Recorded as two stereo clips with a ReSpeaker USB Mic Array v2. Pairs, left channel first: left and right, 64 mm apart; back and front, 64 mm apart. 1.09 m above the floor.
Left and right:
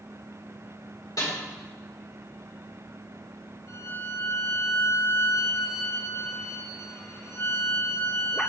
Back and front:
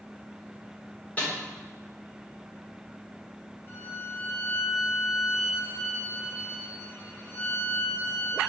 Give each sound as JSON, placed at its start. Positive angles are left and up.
{"t": 1.2, "sound": "a snare drum", "azimuth_deg": 115, "distance_m": 4.5}
{"t": 3.7, "sound": "a violin", "azimuth_deg": 130, "distance_m": 5.0}